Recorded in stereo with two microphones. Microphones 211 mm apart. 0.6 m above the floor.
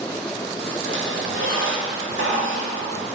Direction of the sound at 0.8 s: 70° right (ahead or behind).